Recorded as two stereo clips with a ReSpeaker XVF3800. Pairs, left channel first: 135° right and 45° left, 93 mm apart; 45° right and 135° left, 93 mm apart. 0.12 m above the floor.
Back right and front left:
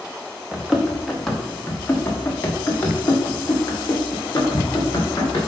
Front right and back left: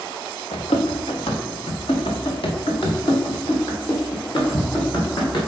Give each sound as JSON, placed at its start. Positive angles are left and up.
{"t": 0.5, "sound": "running footsteps", "azimuth_deg": -35, "distance_m": 1.4}